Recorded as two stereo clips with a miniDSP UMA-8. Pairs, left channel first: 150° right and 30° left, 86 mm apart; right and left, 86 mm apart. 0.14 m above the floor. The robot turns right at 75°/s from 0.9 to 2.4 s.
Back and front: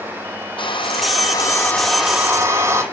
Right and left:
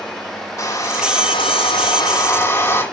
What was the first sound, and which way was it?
A hair dryer, 140° right.